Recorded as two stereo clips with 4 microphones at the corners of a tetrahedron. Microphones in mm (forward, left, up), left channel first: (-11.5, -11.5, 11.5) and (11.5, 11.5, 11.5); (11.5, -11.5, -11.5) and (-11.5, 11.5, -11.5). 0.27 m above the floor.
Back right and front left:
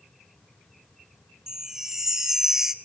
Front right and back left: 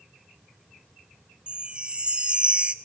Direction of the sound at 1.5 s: 110° left.